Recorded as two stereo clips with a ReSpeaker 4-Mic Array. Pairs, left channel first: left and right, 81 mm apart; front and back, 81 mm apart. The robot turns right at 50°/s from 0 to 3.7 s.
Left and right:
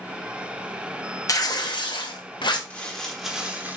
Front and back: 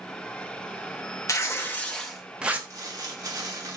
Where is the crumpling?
160° left, 0.9 m; by 3.8 s 150° right, 0.9 m.